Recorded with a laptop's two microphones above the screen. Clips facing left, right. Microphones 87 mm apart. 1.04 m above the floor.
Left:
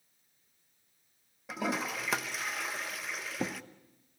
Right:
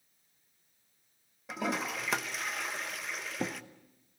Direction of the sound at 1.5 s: Centre (ahead or behind).